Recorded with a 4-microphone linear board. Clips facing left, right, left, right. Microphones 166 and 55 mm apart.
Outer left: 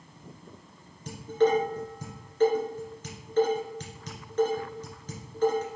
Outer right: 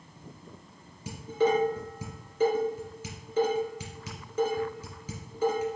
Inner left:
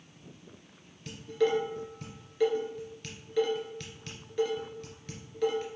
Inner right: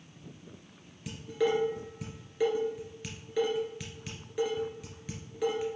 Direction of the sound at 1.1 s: 10° right (ahead or behind).